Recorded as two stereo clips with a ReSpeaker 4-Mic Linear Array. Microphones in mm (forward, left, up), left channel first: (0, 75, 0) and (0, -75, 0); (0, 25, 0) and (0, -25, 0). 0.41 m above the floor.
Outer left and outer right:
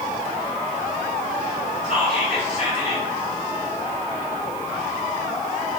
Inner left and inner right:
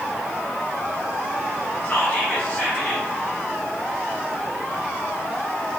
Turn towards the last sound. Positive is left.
turn(degrees=40)  # may be behind; listen again after turning